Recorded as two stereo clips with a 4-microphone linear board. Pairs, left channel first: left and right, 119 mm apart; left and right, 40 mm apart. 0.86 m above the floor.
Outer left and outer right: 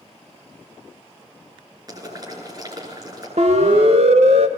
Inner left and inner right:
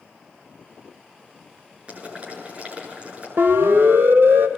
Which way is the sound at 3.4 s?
75° right (ahead or behind).